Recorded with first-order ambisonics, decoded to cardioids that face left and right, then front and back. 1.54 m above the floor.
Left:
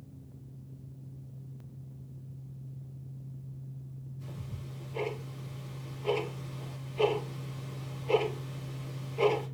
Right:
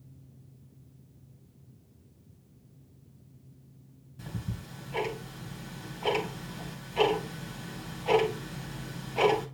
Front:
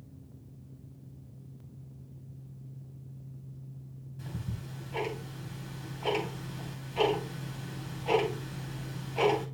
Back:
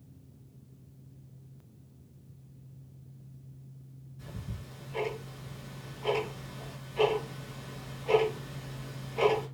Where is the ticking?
65° right, 3 m.